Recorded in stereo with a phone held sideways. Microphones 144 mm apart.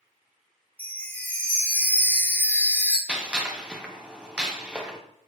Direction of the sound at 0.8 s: 10° left (ahead or behind).